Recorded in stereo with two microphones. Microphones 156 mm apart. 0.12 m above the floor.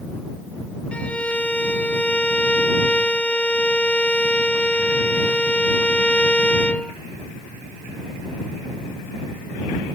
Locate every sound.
0.9 s a violin: 10° left (ahead or behind)